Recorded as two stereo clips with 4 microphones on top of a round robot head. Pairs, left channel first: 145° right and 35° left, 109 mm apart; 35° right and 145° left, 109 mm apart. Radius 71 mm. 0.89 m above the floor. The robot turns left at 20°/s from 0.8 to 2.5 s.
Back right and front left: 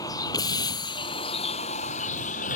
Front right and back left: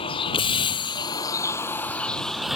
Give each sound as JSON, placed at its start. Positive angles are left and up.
{"t": 0.0, "sound": "a vehicle", "azimuth_deg": -80}